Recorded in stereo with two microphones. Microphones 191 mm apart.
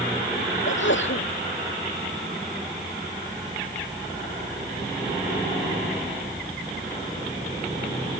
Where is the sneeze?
70° left (ahead or behind).